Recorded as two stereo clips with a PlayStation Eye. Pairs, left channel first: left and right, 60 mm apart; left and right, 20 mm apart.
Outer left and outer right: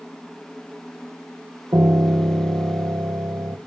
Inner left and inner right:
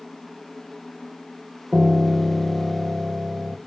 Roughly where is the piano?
Right.